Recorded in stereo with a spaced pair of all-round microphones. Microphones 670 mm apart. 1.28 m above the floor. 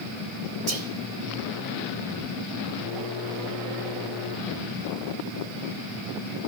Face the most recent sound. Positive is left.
turn(degrees=-55)  # may be behind; listen again after turning